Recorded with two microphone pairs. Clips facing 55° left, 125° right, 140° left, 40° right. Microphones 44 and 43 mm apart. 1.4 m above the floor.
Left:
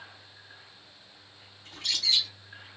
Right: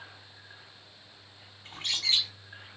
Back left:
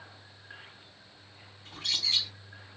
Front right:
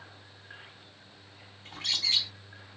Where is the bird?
70° right, 3 m.